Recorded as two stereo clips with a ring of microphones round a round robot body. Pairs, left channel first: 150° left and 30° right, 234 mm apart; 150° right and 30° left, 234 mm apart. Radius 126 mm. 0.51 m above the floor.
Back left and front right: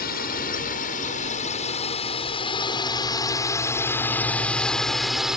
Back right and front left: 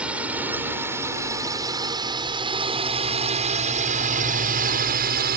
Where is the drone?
115° left; by 5.4 s 55° left.